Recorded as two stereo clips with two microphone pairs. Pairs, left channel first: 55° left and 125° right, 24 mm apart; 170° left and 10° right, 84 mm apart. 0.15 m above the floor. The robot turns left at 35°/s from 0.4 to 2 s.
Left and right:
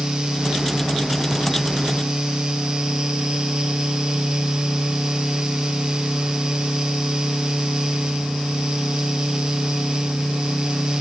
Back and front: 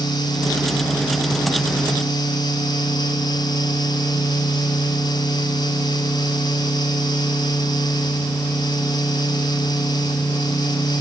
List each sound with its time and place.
Only background noise.